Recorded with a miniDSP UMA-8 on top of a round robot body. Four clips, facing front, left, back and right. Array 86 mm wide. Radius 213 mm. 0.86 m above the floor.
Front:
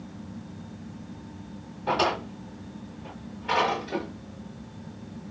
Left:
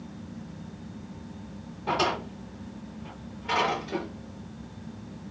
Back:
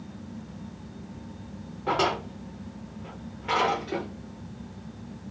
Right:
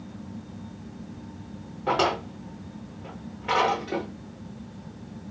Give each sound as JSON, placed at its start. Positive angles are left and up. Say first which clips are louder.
{"t": 1.9, "sound": "a drawer", "louder": "right 3 dB, even", "azimuth_deg": -115, "distance_m": 0.6}